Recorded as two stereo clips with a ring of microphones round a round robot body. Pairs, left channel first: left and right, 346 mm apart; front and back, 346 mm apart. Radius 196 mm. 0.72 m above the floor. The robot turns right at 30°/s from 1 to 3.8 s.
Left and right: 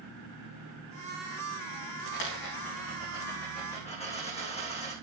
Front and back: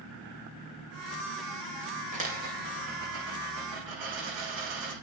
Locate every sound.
2.1 s a dropped coin: 110° left, 7.5 m; by 4.9 s 160° left, 7.5 m